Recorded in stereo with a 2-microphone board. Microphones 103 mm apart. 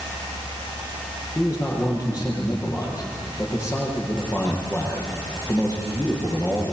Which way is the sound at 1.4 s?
30° left (ahead or behind).